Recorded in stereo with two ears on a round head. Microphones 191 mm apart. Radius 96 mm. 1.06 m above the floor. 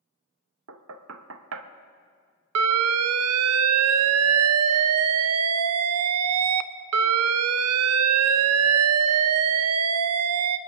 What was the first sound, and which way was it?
Knocking, 70° right (ahead or behind).